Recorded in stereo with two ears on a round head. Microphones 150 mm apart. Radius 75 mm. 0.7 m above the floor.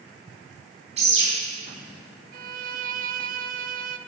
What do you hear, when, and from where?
1.0 s a bird: 40° right (ahead or behind), 5 m
2.3 s a violin: 55° right (ahead or behind), 0.6 m